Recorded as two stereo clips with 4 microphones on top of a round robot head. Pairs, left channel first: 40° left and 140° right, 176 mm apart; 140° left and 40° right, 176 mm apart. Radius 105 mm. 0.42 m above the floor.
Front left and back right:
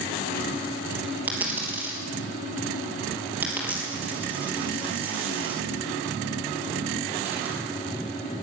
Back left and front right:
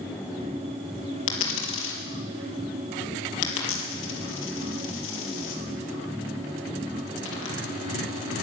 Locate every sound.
1.3 s a dropped coin: 140° left, 3 m